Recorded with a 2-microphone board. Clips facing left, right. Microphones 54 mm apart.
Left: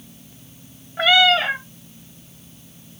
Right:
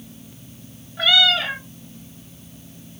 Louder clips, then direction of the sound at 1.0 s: Left 3 dB; 30° left (ahead or behind).